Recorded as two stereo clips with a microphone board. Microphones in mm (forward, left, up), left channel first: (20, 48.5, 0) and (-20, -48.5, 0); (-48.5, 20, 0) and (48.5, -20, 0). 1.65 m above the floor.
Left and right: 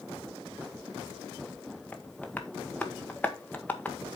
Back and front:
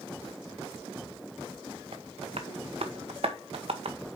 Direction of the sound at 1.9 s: 5° right.